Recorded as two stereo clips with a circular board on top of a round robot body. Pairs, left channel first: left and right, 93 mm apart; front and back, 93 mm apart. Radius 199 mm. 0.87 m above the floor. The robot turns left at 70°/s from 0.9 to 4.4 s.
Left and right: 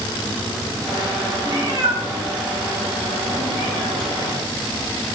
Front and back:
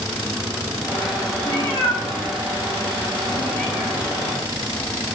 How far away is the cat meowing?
About 1.1 m.